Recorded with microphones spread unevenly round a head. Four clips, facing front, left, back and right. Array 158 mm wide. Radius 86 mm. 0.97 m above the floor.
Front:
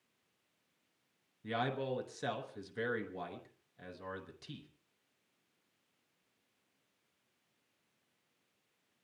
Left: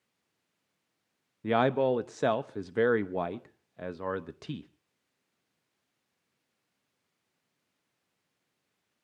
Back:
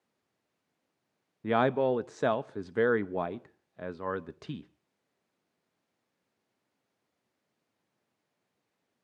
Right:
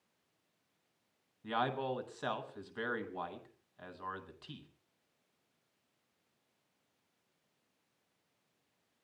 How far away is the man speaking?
About 0.7 m.